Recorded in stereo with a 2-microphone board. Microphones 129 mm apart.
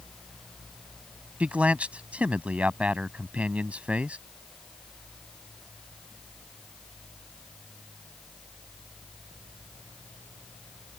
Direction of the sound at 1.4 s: 10° right (ahead or behind).